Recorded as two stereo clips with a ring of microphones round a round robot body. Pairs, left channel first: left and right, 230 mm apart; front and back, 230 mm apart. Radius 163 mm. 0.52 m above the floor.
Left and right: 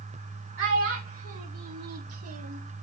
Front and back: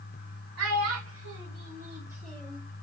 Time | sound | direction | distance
0.6 | a child speaking | 140° right | 1.5 m